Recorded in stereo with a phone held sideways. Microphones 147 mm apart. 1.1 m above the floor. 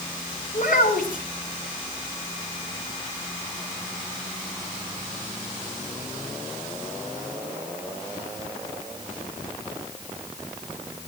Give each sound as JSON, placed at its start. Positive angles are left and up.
{"t": 0.5, "sound": "a child speaking", "side_deg": 70, "distance_m": 6.0}